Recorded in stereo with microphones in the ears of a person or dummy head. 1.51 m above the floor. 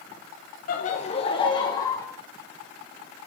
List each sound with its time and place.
0.7 s laughter: 50° left (ahead or behind), 1.2 m; by 2.1 s 15° left (ahead or behind), 1.9 m